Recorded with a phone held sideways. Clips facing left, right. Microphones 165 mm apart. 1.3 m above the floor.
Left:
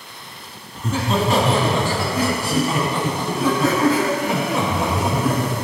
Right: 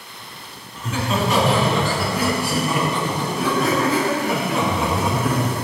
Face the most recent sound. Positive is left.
turn(degrees=15)  # may be behind; listen again after turning